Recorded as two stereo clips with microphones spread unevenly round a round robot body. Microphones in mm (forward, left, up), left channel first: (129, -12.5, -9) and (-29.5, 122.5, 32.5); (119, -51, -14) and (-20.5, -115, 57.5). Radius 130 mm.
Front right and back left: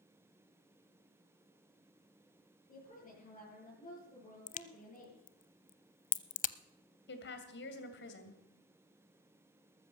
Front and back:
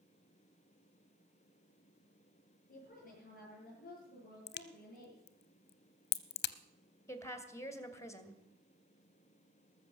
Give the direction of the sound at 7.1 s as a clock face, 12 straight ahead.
1 o'clock.